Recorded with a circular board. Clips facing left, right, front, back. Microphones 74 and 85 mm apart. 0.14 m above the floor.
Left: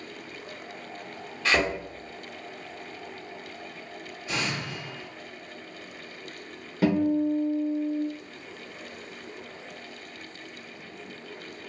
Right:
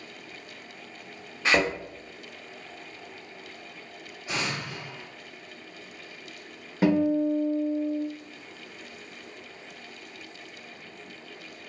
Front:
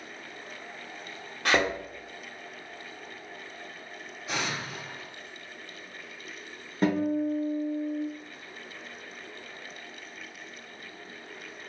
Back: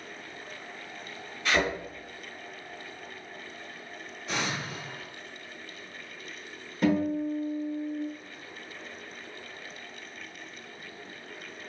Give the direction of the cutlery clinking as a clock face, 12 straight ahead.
I don't hear cutlery clinking.